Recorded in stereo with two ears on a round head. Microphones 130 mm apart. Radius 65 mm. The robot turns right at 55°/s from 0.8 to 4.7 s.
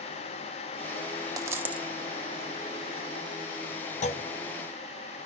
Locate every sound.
1.4 s a dropped coin: 25° right (ahead or behind), 0.8 m; by 1.9 s 5° right (ahead or behind), 0.8 m
4.0 s a clunk: 50° left (ahead or behind), 0.8 m; by 4.2 s 40° left (ahead or behind), 0.8 m